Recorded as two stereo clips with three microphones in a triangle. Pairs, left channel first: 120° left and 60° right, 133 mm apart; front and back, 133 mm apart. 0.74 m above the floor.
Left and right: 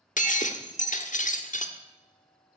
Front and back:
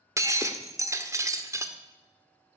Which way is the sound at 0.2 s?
110° left.